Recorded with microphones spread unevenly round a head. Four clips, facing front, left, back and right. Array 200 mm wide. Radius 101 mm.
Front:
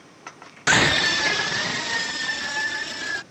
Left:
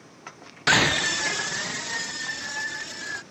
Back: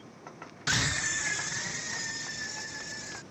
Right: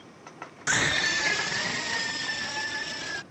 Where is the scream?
40° left; by 3.2 s 5° right.